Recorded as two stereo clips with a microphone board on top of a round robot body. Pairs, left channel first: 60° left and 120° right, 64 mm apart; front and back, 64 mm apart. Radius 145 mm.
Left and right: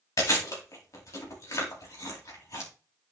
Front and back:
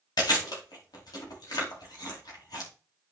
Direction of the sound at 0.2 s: 20° left.